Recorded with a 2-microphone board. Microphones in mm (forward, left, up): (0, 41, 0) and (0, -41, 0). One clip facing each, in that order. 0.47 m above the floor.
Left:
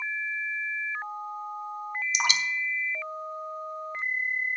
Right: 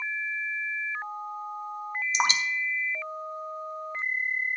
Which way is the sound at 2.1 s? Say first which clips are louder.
Right 3 dB; 35° right (ahead or behind).